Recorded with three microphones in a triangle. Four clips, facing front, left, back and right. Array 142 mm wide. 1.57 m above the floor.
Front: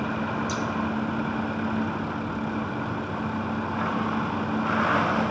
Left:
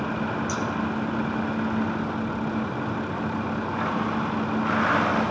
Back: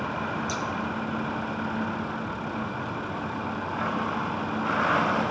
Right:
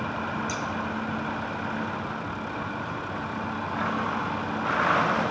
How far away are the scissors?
About 1.0 m.